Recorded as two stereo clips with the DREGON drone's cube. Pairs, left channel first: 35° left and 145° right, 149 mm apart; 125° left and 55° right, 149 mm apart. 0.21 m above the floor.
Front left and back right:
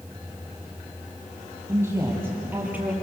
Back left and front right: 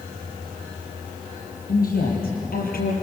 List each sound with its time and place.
1.7 s a woman speaking: 140° left, 6.5 m; by 2.9 s 135° left, 5.5 m